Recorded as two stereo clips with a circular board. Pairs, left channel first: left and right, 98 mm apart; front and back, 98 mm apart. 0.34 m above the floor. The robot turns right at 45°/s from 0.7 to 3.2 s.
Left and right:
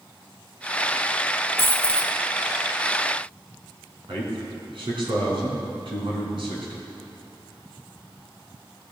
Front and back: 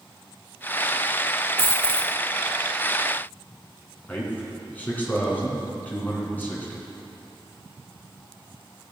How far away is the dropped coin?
About 1.6 m.